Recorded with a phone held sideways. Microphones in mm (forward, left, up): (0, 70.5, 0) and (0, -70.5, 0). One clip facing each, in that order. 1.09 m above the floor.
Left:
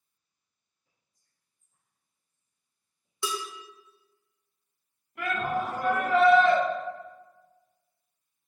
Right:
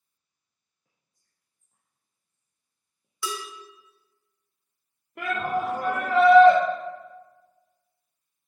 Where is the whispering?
70° right (ahead or behind), 0.5 m.